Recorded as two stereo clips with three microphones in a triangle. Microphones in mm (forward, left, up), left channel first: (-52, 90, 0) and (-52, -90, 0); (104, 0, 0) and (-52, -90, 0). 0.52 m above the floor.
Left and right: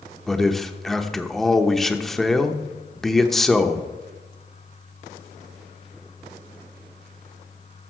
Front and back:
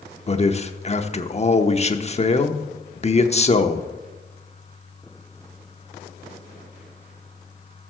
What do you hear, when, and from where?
0.3 s a man speaking: 5° left, 0.8 m